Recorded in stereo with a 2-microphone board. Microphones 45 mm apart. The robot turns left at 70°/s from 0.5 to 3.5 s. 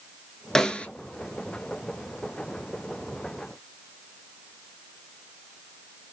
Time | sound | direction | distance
0.6 | a snare drum | 10° left (ahead or behind) | 0.6 m